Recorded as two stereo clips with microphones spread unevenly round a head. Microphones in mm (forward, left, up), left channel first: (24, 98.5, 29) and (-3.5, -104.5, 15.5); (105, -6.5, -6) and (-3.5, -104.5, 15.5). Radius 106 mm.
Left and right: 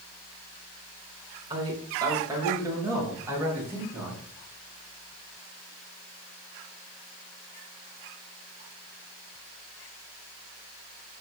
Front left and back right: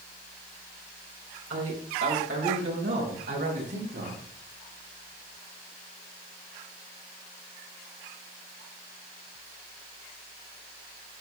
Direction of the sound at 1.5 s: 170° right.